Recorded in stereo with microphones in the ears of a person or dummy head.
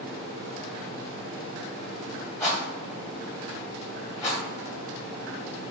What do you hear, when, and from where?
2.4 s a rattle: 10° left (ahead or behind), 1.7 m